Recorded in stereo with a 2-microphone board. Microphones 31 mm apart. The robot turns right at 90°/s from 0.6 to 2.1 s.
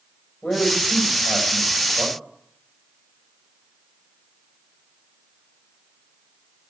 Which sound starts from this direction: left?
A man speaking, at 0.4 s.